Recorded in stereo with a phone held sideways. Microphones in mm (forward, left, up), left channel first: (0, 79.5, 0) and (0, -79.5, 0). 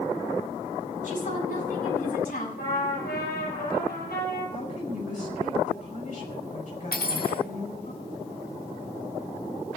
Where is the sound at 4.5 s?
55° left (ahead or behind), 5 m.